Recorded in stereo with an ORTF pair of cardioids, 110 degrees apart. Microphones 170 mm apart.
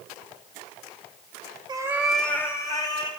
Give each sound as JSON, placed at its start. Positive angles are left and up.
{"t": 1.7, "sound": "a cat meowing", "azimuth_deg": -25, "distance_m": 0.9}